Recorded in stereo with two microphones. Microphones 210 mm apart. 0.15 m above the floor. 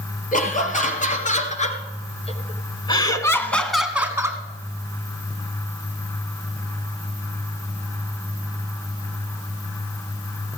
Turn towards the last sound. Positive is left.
turn(degrees=-15)  # may be behind; listen again after turning